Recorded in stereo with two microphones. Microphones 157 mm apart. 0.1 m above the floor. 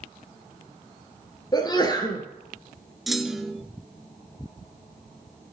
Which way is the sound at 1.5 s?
25° left (ahead or behind).